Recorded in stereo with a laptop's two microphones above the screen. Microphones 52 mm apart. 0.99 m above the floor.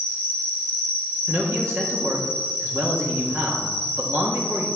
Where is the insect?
80° right, 2.5 m.